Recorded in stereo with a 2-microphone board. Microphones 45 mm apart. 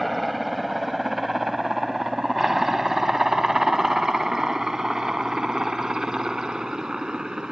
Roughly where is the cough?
No cough in this recording.